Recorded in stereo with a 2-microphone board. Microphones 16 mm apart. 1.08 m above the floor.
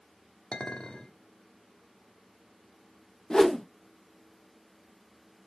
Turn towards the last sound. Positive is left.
turn(degrees=30)  # may be behind; listen again after turning